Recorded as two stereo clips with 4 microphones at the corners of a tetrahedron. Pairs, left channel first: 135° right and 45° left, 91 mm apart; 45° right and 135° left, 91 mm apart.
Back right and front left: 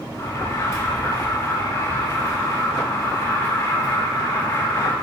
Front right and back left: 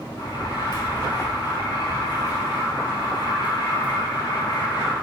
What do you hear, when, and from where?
0.2 s an alarm: 85° right, 6.5 m